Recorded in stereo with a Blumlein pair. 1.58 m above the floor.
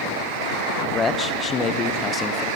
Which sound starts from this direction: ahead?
A man speaking, at 0.9 s.